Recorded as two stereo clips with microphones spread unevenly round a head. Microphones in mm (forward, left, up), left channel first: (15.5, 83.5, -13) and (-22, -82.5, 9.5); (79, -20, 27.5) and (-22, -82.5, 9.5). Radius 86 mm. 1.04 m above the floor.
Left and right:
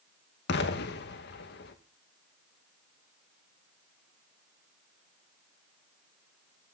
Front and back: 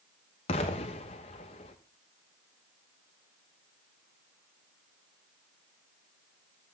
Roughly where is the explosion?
Left.